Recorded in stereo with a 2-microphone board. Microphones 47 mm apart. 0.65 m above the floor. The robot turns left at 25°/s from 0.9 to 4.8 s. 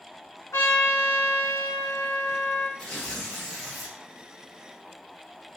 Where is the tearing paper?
20° left (ahead or behind), 1.3 m; by 4.0 s 5° right (ahead or behind), 1.3 m.